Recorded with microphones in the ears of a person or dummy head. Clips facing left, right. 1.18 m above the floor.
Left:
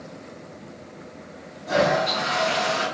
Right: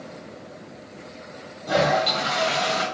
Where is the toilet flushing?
35° right (ahead or behind), 2 m.